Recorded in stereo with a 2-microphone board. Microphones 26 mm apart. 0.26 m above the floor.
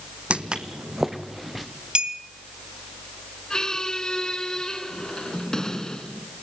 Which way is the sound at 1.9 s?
45° right (ahead or behind).